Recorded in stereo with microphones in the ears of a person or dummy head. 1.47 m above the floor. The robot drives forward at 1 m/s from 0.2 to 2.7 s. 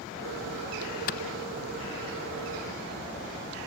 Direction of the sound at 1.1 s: 50° left (ahead or behind).